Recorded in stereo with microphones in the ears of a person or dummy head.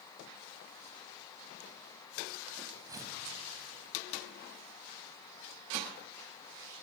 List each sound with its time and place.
2.9 s tearing paper: 20° right (ahead or behind), 2.5 m